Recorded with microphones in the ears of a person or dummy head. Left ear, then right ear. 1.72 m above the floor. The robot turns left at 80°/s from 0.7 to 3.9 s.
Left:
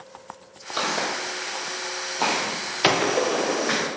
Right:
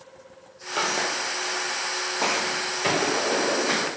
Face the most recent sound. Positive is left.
turn(degrees=-45)